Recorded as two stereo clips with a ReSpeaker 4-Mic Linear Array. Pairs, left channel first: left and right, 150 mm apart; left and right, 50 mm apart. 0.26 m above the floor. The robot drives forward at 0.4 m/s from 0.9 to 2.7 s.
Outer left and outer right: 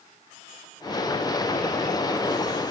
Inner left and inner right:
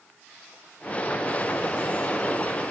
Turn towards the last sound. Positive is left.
No sound to turn to.